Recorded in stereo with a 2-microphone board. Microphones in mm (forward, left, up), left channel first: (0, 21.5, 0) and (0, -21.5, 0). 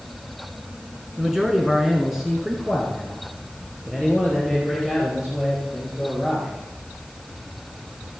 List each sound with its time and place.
1.2 s a man speaking: 10° right (ahead or behind), 1.3 m; by 6.5 s 5° right (ahead or behind), 4 m